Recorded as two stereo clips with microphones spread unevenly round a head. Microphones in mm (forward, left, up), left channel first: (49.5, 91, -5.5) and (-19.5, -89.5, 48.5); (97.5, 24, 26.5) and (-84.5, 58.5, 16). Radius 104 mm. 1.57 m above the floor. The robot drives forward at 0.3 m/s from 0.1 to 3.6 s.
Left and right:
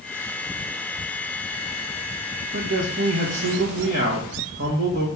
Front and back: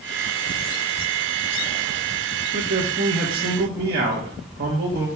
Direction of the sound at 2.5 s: 135° right.